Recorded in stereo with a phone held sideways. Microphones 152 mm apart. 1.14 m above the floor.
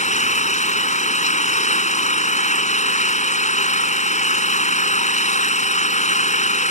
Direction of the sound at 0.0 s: 50° left (ahead or behind).